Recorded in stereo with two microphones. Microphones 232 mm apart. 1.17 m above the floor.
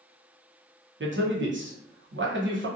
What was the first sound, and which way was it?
A man speaking, 55° right (ahead or behind).